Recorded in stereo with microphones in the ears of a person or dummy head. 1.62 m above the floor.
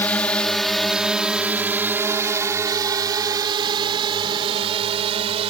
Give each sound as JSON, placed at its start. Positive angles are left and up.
{"t": 0.0, "sound": "a drone", "side_deg": 10}